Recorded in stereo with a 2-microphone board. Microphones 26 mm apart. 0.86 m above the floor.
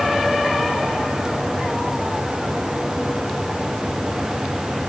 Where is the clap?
I don't hear a clap.